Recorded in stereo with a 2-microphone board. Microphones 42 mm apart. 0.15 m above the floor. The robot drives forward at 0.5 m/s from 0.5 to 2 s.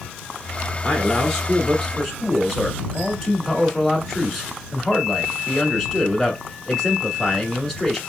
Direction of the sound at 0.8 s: 5° left (ahead or behind).